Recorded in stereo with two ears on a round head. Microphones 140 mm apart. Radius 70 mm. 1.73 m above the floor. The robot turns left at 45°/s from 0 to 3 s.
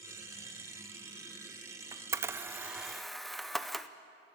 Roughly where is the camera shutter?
Right.